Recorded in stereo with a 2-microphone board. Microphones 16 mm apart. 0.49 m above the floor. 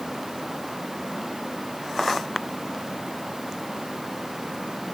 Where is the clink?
No clink in this recording.